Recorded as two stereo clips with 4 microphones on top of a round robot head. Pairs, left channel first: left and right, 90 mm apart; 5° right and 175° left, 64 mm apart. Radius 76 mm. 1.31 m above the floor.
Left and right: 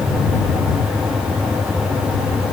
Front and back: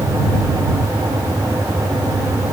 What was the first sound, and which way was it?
Only background noise.